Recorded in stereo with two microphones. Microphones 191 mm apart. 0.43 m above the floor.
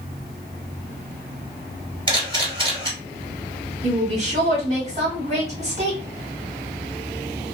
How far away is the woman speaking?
About 1.5 m.